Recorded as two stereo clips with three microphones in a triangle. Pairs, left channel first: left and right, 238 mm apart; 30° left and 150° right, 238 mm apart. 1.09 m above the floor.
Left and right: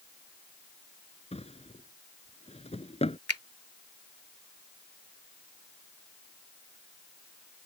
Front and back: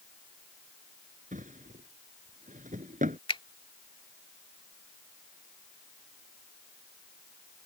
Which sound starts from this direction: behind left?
A drawer, at 1.3 s.